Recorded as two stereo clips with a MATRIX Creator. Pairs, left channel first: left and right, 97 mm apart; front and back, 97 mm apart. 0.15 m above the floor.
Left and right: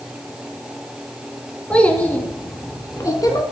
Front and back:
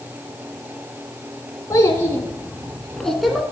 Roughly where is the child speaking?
Ahead.